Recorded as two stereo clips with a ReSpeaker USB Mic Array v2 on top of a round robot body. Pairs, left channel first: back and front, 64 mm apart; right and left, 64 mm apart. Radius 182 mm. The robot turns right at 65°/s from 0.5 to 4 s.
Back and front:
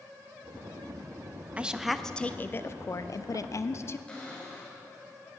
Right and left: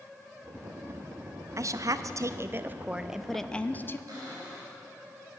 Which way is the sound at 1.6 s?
70° left.